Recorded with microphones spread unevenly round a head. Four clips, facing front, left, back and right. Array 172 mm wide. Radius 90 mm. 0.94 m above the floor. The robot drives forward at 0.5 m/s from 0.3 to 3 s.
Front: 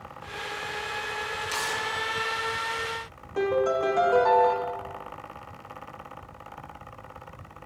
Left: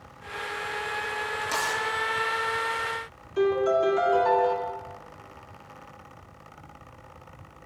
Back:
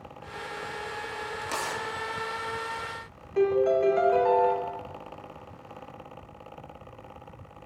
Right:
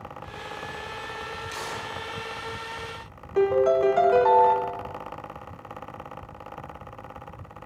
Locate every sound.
1.4 s tearing paper: 145° left, 1.5 m; by 1.8 s 150° left, 1.7 m
3.4 s a piano: 95° right, 1.2 m